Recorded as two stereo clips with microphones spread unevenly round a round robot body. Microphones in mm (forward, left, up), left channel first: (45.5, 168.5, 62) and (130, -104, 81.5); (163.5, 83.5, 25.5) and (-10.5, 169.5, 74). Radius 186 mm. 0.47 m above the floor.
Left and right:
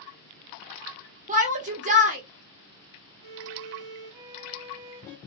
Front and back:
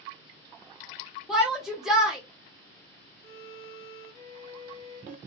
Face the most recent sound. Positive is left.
turn(degrees=-65)